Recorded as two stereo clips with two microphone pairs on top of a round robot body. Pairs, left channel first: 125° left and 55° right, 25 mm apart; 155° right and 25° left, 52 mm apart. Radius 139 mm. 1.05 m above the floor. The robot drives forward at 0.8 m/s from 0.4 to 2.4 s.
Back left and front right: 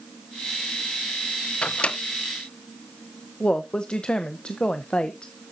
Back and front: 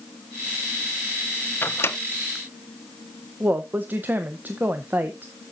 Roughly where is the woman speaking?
Left.